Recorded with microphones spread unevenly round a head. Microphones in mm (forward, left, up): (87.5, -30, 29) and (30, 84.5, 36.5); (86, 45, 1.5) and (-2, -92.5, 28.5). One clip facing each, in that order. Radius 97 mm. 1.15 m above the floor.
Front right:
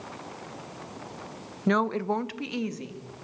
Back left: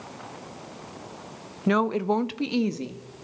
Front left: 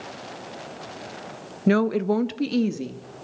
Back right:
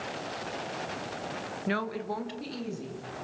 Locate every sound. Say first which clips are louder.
1.7 s a woman speaking: back left 2 dB, front left 13 dB; 30° left, 1.1 m; by 3.1 s 65° left, 2.5 m